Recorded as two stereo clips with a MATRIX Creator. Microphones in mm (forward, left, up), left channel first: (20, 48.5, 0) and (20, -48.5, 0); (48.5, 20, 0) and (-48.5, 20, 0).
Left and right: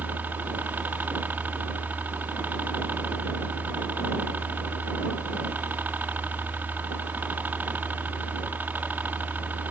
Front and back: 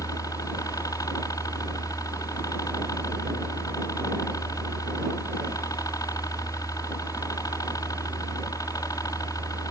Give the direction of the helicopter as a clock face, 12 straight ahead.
1 o'clock.